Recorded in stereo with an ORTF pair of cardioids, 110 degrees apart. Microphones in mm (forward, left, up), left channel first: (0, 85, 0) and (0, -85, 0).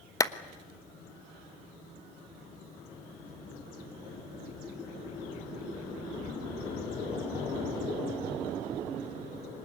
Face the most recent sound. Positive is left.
turn(degrees=20)